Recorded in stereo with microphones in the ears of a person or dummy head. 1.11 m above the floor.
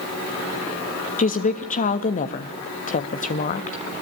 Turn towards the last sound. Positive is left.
turn(degrees=40)  # may be behind; listen again after turning